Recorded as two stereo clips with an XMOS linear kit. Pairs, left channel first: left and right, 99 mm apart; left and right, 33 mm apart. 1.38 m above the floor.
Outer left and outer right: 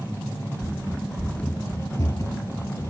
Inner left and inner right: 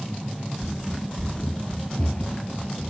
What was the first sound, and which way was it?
Running footsteps, 20° right (ahead or behind).